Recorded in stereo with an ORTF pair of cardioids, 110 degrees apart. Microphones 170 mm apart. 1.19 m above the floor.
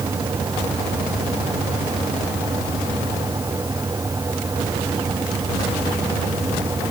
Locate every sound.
0.0 s a fan: 20° right